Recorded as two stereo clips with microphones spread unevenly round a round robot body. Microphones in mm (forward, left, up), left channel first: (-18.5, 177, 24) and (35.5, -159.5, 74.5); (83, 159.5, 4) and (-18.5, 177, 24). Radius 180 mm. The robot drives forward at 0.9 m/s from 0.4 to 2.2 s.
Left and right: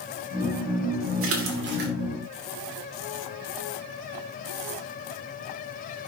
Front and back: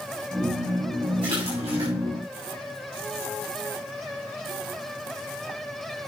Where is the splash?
135° right, 1.9 m; by 1.9 s 145° right, 2.5 m.